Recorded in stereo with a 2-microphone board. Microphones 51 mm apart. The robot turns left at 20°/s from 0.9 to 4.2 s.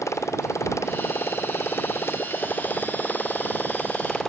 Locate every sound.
0.0 s a motorcycle: 75° left; by 4.3 s 10° left